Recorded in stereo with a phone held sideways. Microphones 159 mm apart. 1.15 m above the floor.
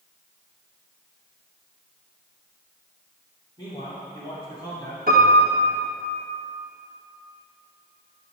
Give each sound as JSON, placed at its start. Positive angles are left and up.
{"t": 3.6, "sound": "a man speaking", "side_deg": 30, "distance_m": 2.5}
{"t": 5.1, "sound": "a piano", "side_deg": -70, "distance_m": 1.8}